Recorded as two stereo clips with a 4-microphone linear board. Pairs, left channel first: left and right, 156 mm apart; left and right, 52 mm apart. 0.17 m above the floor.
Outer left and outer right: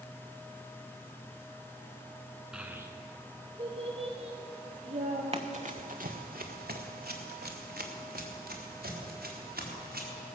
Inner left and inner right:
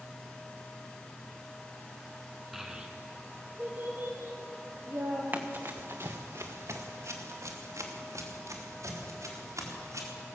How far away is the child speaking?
About 1.4 m.